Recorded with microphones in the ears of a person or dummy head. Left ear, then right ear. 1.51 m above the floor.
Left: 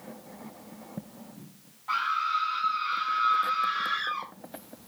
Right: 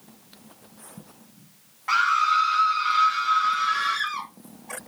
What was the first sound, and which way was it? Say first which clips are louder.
A scream: right 7 dB; 55° right (ahead or behind).